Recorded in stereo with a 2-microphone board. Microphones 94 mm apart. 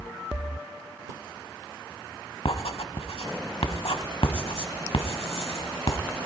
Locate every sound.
2.5 s writing: 80° left, 0.8 m